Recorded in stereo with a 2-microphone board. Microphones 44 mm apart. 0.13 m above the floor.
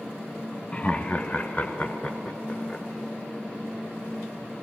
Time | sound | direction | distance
0.7 | laughter | 25° left (ahead or behind) | 1.2 m